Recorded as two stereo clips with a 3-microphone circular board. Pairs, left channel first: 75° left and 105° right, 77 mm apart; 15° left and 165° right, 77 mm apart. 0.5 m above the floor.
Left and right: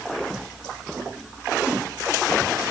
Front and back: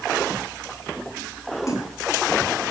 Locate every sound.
1.7 s a splash: 30° right, 3.5 m